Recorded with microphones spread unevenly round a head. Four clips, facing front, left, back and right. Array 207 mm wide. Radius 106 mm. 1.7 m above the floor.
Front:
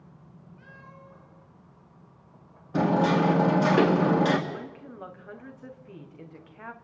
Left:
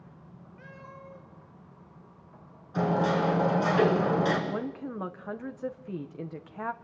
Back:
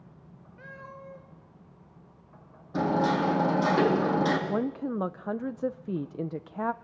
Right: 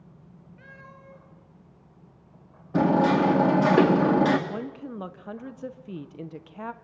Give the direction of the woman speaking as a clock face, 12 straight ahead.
6 o'clock.